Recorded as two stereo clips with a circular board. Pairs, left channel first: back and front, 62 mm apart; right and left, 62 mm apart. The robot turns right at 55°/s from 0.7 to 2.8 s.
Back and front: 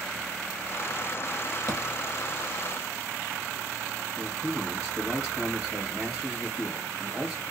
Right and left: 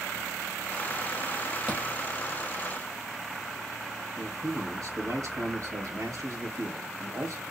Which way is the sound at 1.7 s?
25° left.